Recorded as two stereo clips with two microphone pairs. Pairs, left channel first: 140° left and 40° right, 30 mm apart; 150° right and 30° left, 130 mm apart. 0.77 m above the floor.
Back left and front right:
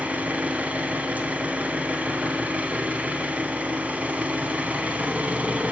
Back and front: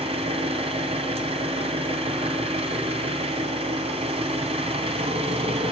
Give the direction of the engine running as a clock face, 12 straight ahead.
12 o'clock.